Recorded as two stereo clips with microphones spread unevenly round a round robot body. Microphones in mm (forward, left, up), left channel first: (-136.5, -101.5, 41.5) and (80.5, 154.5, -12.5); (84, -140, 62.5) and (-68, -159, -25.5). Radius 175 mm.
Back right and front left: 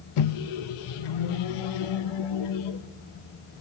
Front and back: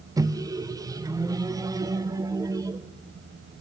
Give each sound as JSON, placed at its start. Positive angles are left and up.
{"t": 0.2, "sound": "a microwave", "azimuth_deg": -110, "distance_m": 0.5}